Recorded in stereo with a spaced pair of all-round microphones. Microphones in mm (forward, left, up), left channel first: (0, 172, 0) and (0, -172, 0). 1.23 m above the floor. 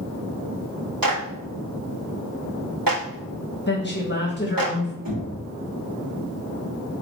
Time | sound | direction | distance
1.0 | a clap | 80° right | 2.5 m
3.7 | a woman speaking | 30° left (ahead or behind) | 1.3 m
5.0 | knocking | 80° right | 2.5 m